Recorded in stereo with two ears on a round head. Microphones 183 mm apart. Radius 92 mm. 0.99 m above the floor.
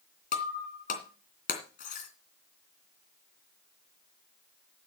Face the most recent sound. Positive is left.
turn(degrees=40)  # may be behind; listen again after turning